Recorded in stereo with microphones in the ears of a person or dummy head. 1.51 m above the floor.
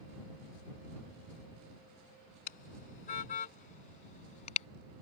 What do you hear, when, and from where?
2.5 s a car horn: 50° left (ahead or behind); by 4.7 s 35° left (ahead or behind)